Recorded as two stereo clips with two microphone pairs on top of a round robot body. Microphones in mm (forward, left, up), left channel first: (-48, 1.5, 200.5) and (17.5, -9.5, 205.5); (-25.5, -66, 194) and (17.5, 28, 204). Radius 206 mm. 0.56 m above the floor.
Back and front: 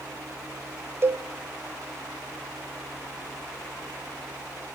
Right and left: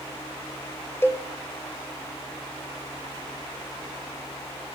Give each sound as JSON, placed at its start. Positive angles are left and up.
{"t": 1.0, "sound": "a cowbell", "azimuth_deg": -60, "distance_m": 0.7}